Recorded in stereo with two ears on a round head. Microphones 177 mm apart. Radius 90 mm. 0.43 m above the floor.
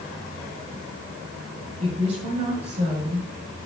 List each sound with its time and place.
1.8 s a woman speaking: 30° right (ahead or behind), 5.5 m